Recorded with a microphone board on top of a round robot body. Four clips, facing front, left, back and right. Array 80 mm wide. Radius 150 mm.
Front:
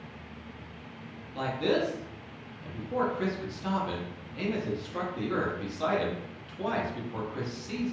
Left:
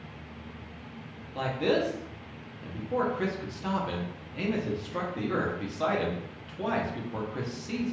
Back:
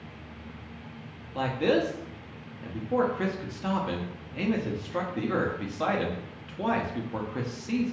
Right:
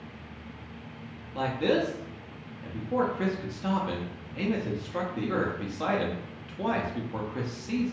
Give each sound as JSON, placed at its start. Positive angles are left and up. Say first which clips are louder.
{"t": 1.4, "sound": "a man speaking", "louder": "right 1 dB, back 3 dB", "azimuth_deg": -170, "distance_m": 0.8}